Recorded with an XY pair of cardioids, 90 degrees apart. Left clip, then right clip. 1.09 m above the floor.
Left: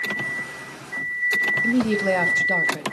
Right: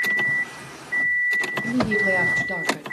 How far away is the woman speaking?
About 1.6 m.